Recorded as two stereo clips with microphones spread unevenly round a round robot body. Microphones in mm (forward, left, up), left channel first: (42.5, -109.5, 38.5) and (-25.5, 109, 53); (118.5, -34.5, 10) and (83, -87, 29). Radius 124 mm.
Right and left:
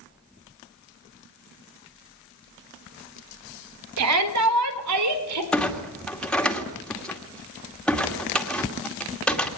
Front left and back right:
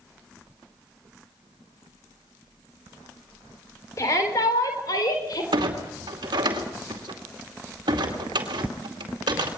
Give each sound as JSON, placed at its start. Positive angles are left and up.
{"t": 4.0, "sound": "a shout", "azimuth_deg": 115, "distance_m": 3.5}
{"t": 5.5, "sound": "a clunk", "azimuth_deg": -160, "distance_m": 2.5}